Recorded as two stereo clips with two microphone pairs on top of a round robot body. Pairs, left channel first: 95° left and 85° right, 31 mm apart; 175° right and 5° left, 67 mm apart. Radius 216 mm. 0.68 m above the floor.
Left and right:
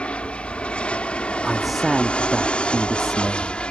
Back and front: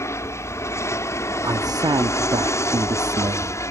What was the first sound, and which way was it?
An aircraft, 145° left.